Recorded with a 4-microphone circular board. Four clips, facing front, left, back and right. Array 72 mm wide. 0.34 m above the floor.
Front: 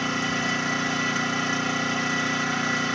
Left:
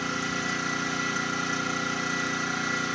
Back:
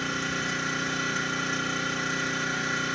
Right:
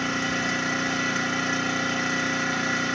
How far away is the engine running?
About 2 m.